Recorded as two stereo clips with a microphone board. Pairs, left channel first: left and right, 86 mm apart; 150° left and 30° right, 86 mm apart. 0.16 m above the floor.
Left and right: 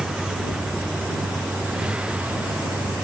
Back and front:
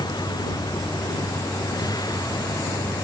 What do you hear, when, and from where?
0.0 s a vehicle: 175° right; by 3.0 s 165° right